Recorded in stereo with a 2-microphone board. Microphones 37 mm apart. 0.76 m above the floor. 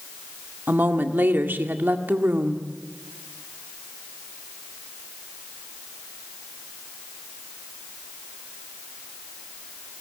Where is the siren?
I don't hear a siren.